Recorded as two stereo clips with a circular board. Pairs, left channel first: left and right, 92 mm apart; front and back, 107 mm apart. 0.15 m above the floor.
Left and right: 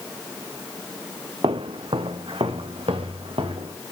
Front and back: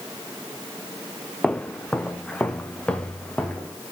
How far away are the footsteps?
About 0.7 m.